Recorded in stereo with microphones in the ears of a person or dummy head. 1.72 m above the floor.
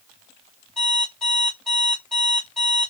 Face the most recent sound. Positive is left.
turn(degrees=5)  # may be behind; listen again after turning